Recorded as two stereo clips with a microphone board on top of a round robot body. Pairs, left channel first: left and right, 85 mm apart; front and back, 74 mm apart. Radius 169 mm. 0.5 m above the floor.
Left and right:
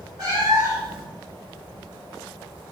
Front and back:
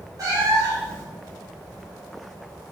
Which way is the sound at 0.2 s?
135° right.